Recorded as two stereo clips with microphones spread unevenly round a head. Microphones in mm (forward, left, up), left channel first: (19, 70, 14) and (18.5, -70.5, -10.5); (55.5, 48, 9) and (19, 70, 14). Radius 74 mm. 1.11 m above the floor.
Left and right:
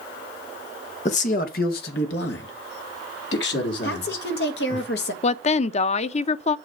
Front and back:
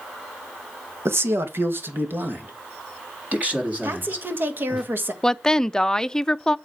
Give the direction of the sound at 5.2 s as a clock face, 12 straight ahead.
11 o'clock.